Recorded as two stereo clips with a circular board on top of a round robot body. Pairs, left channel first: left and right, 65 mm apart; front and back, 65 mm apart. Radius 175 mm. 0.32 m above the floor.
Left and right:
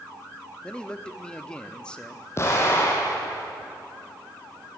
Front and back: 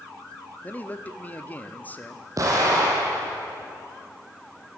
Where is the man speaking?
30° left, 1.4 m.